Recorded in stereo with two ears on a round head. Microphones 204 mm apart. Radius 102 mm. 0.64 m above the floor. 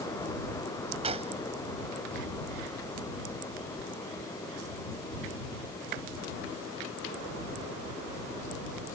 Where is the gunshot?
30° right (ahead or behind).